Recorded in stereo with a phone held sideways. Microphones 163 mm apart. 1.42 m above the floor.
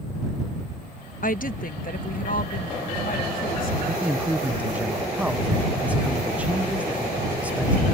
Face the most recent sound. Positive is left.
turn(degrees=-10)  # may be behind; listen again after turning